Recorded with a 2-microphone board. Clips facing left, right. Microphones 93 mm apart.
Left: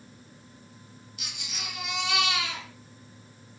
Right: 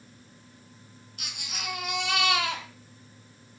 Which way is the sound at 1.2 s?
60° right (ahead or behind).